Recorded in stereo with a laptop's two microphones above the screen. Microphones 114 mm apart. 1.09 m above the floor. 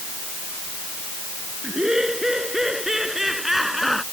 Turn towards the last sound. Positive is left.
turn(degrees=0)  # may be behind; listen again after turning